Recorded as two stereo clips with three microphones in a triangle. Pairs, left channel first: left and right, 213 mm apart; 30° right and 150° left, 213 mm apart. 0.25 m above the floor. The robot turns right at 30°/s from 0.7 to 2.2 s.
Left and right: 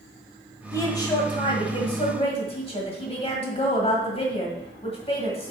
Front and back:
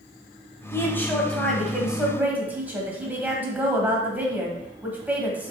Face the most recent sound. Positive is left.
turn(degrees=75)